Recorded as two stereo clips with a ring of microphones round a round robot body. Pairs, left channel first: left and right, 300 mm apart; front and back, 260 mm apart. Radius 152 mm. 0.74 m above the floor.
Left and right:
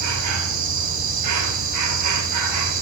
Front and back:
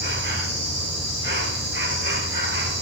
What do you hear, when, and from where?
0.0 s an insect: 125° right, 2.5 m